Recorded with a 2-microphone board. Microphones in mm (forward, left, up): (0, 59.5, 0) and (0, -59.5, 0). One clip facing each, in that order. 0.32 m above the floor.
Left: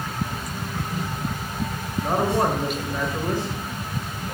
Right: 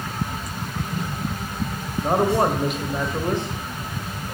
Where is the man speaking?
20° right (ahead or behind), 1.5 m.